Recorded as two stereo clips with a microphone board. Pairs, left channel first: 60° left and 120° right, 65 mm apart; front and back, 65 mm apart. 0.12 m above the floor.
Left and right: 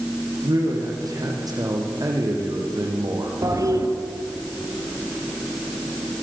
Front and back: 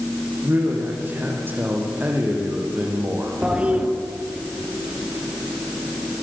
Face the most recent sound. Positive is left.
turn(degrees=-110)